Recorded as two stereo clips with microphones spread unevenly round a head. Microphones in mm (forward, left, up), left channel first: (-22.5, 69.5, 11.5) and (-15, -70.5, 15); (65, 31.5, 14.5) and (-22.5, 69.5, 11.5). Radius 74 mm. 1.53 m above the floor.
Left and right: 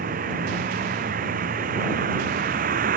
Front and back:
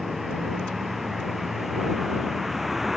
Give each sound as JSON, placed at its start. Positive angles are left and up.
{"t": 0.0, "sound": "a vehicle", "azimuth_deg": -115}